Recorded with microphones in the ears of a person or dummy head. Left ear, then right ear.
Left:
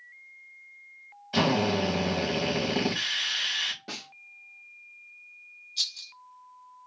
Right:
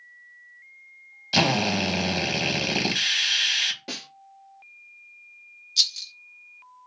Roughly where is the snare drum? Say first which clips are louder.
Right 4 dB; centre.